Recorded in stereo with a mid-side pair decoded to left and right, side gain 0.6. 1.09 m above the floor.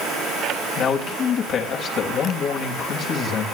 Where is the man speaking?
50° left, 5.5 m.